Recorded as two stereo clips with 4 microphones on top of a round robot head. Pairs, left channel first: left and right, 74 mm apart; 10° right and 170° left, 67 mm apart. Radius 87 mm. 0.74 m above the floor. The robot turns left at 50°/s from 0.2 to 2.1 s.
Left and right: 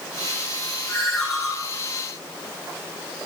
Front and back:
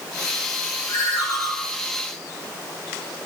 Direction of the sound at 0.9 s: 20° left.